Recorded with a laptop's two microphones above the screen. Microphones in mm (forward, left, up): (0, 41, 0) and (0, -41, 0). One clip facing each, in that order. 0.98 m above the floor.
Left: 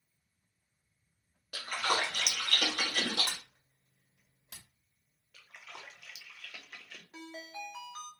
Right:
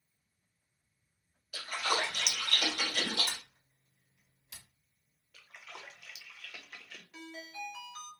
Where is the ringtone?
30° left (ahead or behind), 1.1 m.